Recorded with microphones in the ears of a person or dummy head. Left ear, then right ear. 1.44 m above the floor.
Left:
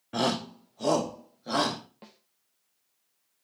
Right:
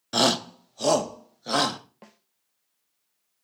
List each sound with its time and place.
0.1 s a shout: 80° right, 0.9 m; by 1.8 s 85° right, 2.5 m
2.0 s a snare drum: 20° right (ahead or behind), 1.0 m